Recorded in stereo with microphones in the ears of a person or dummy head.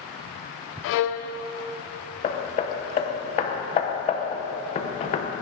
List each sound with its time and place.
0.8 s a violin: 65° left (ahead or behind), 0.5 m
2.2 s hammering: 30° left (ahead or behind), 0.8 m